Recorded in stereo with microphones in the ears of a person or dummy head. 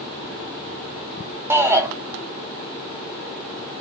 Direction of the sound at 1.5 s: 20° right (ahead or behind).